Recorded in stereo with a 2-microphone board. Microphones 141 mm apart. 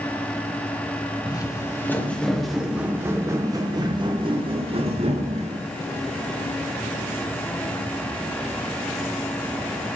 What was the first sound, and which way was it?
Footsteps, 30° left (ahead or behind).